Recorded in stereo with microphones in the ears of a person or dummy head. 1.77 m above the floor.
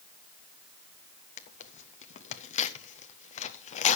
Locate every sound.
1.4 s tearing paper: 30° left (ahead or behind), 0.6 m